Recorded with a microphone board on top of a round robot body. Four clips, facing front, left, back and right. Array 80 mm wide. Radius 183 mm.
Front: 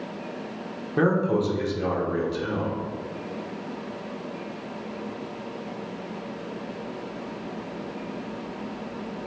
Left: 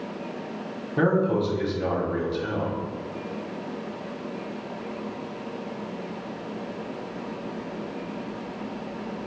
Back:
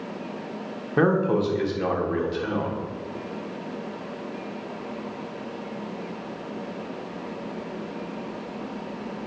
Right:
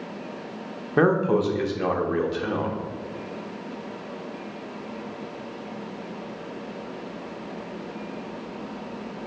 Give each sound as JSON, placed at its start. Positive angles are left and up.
{"t": 1.0, "sound": "a man speaking", "azimuth_deg": -110, "distance_m": 1.5}